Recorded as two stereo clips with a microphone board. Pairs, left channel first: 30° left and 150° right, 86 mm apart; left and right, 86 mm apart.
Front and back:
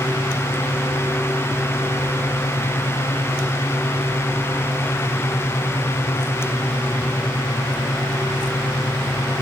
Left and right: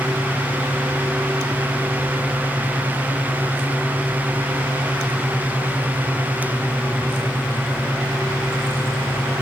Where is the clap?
No clap in this recording.